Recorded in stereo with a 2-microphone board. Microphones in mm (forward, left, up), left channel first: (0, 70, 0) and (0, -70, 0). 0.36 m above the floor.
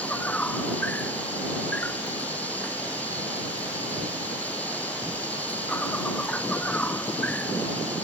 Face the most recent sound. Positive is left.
turn(degrees=10)  # may be behind; listen again after turning